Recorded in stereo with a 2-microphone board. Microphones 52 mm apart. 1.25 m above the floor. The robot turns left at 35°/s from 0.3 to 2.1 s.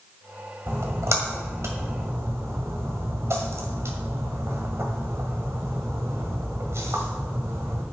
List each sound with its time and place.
0.7 s a splash: 50° right (ahead or behind), 2 m; by 7.8 s 60° right (ahead or behind), 2 m